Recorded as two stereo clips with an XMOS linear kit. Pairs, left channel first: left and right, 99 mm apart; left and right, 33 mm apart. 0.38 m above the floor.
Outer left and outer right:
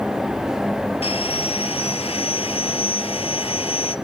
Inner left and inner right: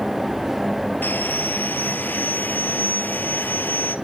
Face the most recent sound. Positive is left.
turn(degrees=80)